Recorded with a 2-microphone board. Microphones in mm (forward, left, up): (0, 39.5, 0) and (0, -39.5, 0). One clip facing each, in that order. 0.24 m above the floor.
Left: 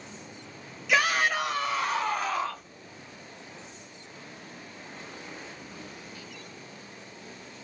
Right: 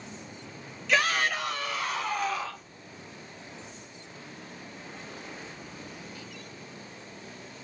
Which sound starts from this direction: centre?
A shout, at 0.9 s.